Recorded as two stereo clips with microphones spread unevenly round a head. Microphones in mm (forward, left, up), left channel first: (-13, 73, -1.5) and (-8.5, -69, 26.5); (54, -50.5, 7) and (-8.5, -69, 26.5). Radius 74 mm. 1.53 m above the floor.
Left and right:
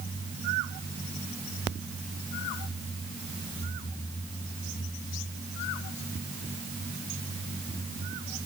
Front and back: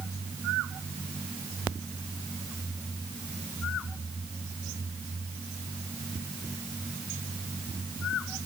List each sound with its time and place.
Only background noise.